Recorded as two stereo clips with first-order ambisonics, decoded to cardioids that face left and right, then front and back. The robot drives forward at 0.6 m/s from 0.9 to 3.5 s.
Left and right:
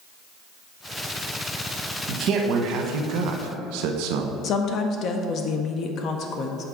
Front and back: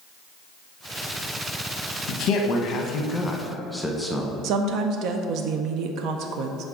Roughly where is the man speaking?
Ahead right.